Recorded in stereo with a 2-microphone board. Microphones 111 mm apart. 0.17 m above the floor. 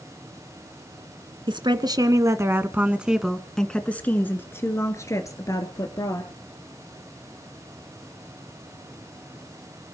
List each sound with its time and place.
1.5 s a woman speaking: 50° right (ahead or behind), 1.9 m; by 6.3 s 35° left (ahead or behind), 3.5 m